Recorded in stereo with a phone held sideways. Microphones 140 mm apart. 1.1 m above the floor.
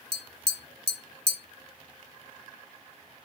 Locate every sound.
0.1 s tapping: 40° right (ahead or behind), 1.2 m